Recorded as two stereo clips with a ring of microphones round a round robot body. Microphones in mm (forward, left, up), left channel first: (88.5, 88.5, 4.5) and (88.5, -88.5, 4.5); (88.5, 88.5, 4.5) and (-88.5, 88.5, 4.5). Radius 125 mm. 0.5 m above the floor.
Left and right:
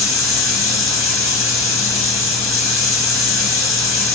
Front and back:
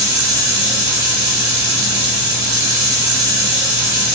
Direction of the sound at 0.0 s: 170° left.